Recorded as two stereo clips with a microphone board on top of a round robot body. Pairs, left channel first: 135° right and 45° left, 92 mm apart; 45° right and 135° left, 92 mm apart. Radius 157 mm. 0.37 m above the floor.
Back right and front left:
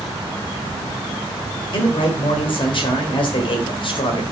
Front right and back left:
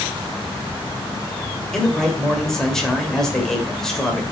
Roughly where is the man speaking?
Behind right.